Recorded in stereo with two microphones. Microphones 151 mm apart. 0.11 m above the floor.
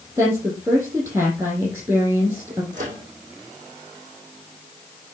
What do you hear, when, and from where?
0.2 s a woman speaking: 20° right (ahead or behind), 3.5 m
2.7 s a microwave: 55° right (ahead or behind), 3.5 m